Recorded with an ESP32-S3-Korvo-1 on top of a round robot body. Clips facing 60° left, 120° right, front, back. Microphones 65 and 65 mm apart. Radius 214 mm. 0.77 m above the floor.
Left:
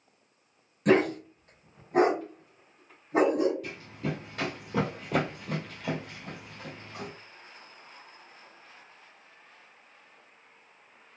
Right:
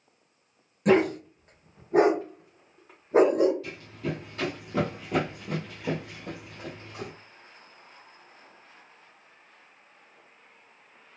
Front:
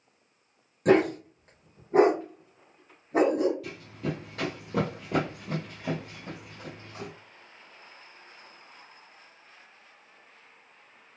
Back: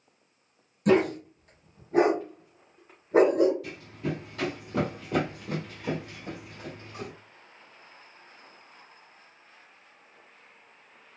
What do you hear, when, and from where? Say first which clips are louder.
0.8 s a dog barking: right 2 dB, front 1 dB; 40° right, 1.1 m; by 3.5 s 140° right, 0.9 m
3.6 s running footsteps: right 1 dB, even; 15° left, 1.2 m; by 7.1 s 120° right, 1.2 m